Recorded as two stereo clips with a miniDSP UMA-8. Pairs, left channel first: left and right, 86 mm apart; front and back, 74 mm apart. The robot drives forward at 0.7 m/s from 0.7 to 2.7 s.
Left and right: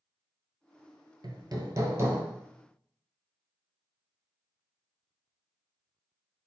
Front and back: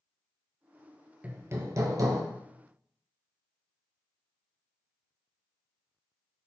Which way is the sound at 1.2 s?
110° right.